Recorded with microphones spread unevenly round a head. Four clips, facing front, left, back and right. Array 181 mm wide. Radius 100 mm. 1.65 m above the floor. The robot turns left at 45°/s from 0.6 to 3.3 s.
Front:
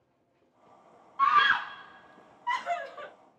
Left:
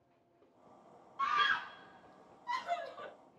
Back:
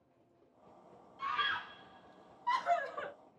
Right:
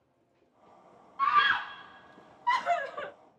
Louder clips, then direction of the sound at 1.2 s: Right 7 dB, front 14 dB; 10° right.